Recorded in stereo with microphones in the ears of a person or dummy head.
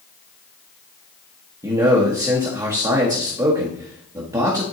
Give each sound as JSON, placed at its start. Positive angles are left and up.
{"t": 1.6, "sound": "a man speaking", "side_deg": -20, "distance_m": 1.1}